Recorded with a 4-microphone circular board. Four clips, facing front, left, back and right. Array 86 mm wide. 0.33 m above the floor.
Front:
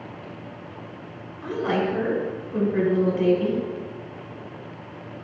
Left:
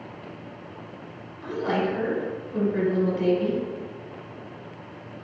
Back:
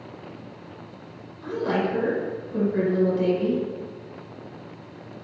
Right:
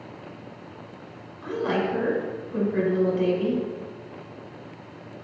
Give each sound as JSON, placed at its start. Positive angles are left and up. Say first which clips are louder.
{"t": 1.4, "sound": "a woman speaking", "louder": "even, front 1 dB", "azimuth_deg": -25, "distance_m": 1.3}